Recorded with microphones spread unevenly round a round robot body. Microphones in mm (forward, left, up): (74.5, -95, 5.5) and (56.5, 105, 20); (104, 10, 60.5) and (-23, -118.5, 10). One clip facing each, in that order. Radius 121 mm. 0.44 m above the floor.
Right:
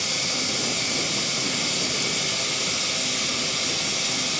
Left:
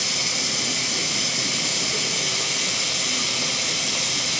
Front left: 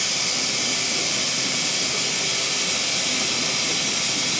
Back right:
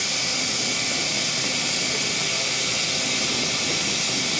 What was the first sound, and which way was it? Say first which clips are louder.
Running water: right 1 dB, even; 100° left.